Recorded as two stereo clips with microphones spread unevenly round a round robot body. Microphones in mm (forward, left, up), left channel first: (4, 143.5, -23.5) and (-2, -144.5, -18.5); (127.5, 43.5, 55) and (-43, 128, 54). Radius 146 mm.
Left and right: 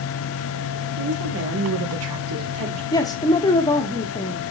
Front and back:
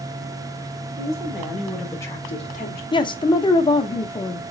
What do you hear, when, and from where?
1.0 s a woman speaking: 135° right, 2 m; by 2.8 s 45° right, 1.6 m
2.9 s a man speaking: 20° left, 0.9 m